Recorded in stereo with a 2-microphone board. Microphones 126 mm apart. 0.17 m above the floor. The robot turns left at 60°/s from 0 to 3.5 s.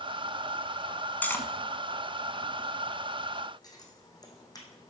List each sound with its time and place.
1.2 s cutlery clinking: 15° left (ahead or behind), 0.7 m; by 1.5 s 20° left (ahead or behind), 0.7 m
3.6 s scissors: 30° left (ahead or behind), 2 m